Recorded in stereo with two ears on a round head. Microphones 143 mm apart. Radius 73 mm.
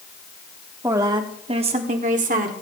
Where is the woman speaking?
15° right (ahead or behind), 1.2 m; by 2.5 s 55° right (ahead or behind), 1.6 m.